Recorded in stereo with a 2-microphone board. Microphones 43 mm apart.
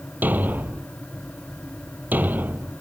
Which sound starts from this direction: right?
A thud, at 0.2 s.